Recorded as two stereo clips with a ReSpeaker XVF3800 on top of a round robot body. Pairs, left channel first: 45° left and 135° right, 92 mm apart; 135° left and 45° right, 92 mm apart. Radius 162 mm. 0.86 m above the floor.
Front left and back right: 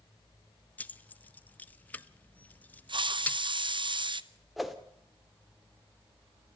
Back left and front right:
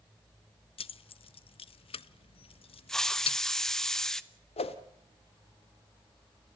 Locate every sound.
0.8 s keys jangling: 120° left, 0.6 m
2.9 s a hiss: 140° right, 1.1 m
4.6 s a whoosh: 135° left, 1.2 m